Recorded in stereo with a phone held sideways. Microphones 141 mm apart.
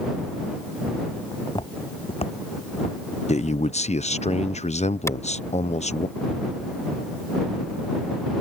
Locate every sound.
1.3 s footsteps: 30° left (ahead or behind); by 3.0 s 60° left (ahead or behind)
3.3 s a man speaking: 55° left (ahead or behind)
5.1 s a clap: 20° left (ahead or behind)